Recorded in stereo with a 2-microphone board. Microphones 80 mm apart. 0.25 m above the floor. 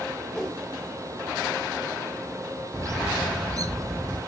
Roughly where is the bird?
Right.